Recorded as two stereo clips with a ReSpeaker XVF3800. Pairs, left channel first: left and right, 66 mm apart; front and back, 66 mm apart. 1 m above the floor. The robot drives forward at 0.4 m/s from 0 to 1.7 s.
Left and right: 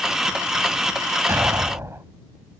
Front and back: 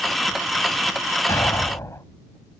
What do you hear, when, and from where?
1.3 s an explosion: 40° right